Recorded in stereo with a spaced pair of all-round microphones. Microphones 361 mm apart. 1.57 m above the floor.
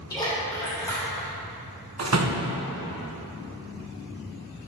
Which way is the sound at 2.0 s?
45° right (ahead or behind).